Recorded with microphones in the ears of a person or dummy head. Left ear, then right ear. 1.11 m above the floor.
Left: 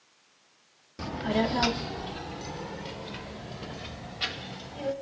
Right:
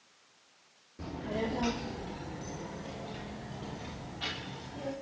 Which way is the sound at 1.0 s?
65° left (ahead or behind).